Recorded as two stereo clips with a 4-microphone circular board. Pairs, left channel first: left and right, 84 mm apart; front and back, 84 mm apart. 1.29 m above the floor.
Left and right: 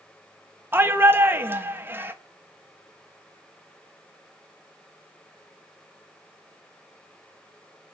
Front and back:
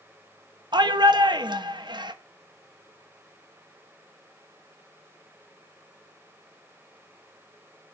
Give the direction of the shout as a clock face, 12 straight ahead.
5 o'clock.